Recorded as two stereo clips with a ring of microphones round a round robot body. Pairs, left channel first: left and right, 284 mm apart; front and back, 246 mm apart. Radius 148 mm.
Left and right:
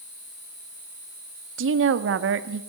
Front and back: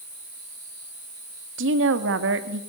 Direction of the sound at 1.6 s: 135° right.